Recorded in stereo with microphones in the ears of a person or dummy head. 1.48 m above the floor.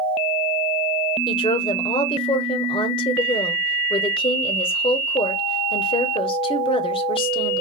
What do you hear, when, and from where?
1.3 s a woman speaking: 30° left (ahead or behind), 0.7 m